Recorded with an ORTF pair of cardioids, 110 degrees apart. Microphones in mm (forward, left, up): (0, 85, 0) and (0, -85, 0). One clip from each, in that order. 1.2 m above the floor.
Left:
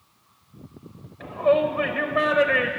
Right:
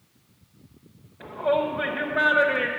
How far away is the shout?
About 0.7 m.